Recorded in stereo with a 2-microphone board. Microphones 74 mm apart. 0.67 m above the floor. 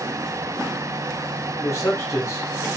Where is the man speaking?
40° left (ahead or behind), 2.0 m.